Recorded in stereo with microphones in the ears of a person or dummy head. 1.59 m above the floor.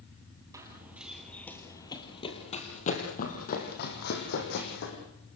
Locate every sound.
0.5 s running footsteps: 15° right (ahead or behind), 3 m; by 5.0 s 60° left (ahead or behind), 5.5 m